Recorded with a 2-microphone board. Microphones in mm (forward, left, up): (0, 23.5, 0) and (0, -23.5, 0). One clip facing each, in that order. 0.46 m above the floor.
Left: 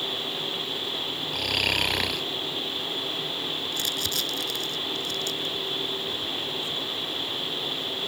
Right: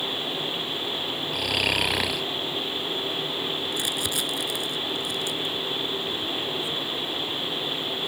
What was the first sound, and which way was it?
Snoring, 5° right (ahead or behind).